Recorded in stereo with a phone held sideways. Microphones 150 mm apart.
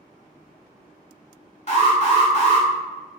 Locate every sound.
1.7 s an alarm: 45° left (ahead or behind), 1.0 m